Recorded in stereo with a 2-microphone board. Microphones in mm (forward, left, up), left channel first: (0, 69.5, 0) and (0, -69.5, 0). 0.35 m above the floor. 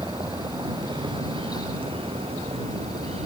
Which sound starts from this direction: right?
A vehicle, at 0.0 s.